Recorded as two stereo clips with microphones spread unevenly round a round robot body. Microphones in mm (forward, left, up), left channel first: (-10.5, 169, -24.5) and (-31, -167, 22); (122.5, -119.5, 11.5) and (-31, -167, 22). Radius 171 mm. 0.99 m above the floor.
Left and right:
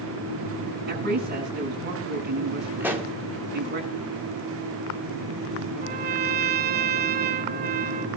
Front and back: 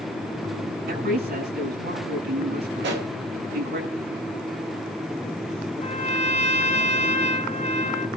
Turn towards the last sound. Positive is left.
turn(degrees=-30)